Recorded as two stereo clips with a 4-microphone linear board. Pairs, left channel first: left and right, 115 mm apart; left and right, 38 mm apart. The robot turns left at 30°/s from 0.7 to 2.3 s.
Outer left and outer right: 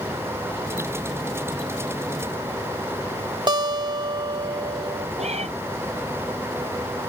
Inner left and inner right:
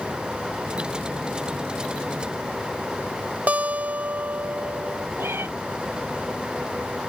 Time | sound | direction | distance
3.5 | a guitar | 40° right (ahead or behind) | ?
5.2 | a cat meowing | 70° right (ahead or behind) | ?